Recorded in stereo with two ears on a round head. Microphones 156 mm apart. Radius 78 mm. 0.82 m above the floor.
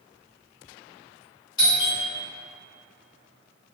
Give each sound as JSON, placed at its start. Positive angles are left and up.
{"t": 1.6, "sound": "a doorbell", "side_deg": 25, "distance_m": 1.7}